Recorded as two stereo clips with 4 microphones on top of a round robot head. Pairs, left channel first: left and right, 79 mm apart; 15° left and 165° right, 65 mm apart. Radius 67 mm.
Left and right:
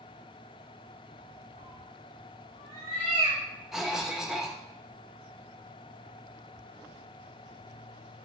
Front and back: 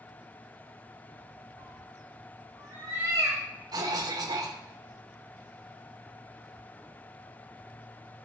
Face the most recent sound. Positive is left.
turn(degrees=-175)